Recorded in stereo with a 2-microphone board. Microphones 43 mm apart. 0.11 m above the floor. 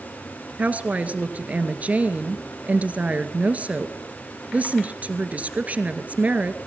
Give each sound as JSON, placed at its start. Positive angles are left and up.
{"t": 0.6, "sound": "a woman speaking", "side_deg": -35, "distance_m": 2.0}